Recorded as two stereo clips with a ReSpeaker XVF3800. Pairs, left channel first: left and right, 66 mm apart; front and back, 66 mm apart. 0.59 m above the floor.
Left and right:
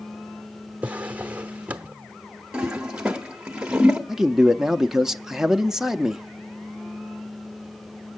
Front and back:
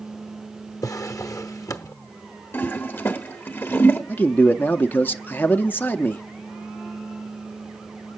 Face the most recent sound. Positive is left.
turn(degrees=-15)